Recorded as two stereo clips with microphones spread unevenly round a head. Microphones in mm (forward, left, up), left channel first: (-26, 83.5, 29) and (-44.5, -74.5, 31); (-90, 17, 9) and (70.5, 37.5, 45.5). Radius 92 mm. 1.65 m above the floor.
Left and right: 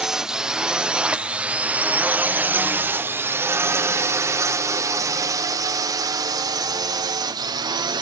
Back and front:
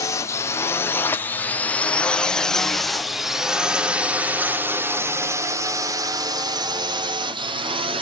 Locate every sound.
0.0 s a drone: straight behind; by 8.0 s 50° right